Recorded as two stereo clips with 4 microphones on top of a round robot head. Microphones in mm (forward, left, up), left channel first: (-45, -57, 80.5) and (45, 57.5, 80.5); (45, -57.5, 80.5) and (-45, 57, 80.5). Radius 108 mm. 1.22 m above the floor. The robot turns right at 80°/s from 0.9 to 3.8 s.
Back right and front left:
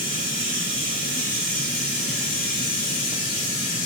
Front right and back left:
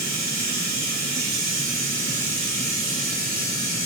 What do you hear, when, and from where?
0.0 s running water: 45° left, 1.2 m; by 3.9 s 85° right, 1.2 m